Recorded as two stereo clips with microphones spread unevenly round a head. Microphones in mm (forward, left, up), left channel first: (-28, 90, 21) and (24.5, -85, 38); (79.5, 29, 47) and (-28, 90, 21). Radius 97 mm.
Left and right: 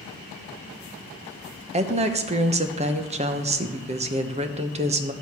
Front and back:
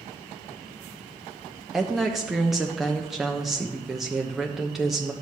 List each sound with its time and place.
1.7 s a woman speaking: 130° right, 0.9 m